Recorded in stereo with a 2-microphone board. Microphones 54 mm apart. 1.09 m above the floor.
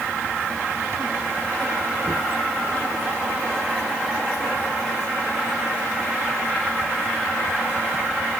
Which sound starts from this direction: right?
Knocking, at 2.0 s.